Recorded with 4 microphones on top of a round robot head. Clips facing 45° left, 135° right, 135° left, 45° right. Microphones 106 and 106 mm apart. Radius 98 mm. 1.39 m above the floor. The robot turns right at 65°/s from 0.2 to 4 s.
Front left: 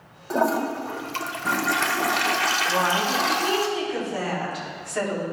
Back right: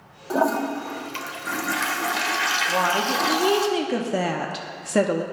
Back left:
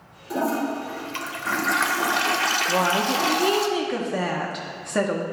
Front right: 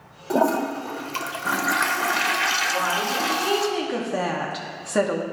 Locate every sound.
0.3 s a toilet flushing: 55° right, 0.7 m; by 3.7 s 165° left, 0.7 m
2.7 s a woman speaking: 140° left, 0.7 m; by 5.2 s 130° right, 0.7 m